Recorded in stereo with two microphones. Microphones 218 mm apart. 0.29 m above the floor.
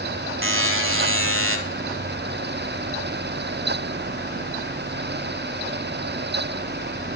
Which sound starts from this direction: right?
A buzzer, at 0.4 s.